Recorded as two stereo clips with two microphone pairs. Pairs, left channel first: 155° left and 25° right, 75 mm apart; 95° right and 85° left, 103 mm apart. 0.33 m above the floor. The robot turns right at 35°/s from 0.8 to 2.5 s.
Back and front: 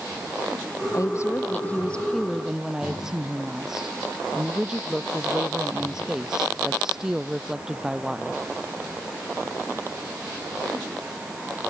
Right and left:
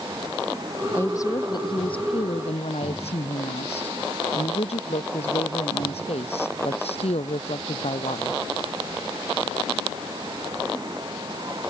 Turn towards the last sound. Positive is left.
turn(degrees=-105)